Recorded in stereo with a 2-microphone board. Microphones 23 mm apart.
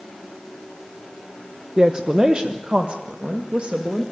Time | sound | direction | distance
1.8 | a woman speaking | 30° right (ahead or behind) | 1.0 m